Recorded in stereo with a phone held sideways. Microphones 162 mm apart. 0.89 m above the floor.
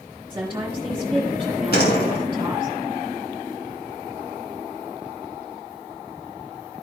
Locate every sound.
0.3 s a woman speaking: 20° right (ahead or behind), 1.8 m
1.7 s a door slam: 80° left, 3 m